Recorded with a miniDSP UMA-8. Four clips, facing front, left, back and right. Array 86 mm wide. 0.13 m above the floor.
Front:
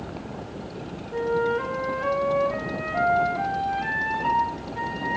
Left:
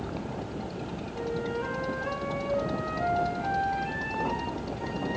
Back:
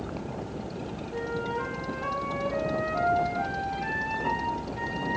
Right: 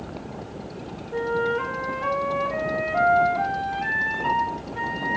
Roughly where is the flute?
Ahead right.